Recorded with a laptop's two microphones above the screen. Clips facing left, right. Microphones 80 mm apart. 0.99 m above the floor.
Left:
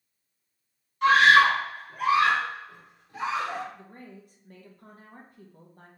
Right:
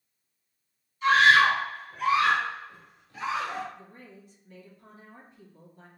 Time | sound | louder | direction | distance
1.0 | a scream | left 2 dB | 60° left (ahead or behind) | 1.1 m
3.7 | a woman speaking | left 2 dB | 50° left (ahead or behind) | 1.1 m